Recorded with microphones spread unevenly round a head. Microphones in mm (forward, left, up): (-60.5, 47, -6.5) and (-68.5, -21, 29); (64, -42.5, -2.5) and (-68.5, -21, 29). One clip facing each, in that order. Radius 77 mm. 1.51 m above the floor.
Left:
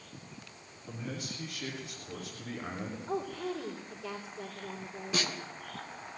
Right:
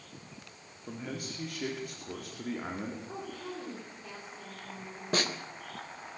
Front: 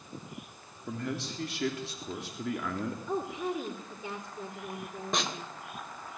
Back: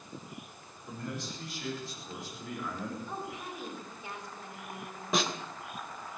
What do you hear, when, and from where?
0.9 s a man speaking: 35° right, 3.5 m
3.1 s a woman speaking: 10° left, 4 m
5.1 s a snare drum: 105° right, 3 m